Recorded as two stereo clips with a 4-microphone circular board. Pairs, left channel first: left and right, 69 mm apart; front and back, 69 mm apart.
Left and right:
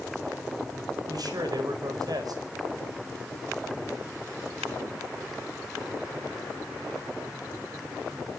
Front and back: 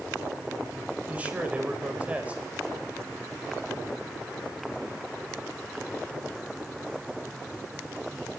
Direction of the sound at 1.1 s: 110° right.